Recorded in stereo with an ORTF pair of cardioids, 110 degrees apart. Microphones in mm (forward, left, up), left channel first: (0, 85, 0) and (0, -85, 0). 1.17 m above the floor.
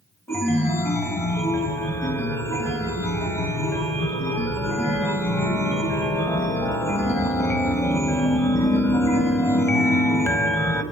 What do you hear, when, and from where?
0.3 s a chime: 15° left, 0.9 m